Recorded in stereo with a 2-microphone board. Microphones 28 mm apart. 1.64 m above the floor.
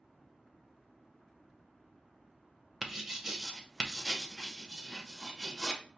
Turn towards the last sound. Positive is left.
turn(degrees=-5)  # may be behind; listen again after turning